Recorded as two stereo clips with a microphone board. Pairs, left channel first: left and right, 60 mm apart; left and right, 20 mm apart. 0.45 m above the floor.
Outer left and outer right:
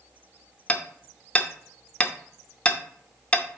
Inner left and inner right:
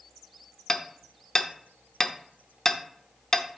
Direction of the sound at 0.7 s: 20° left (ahead or behind).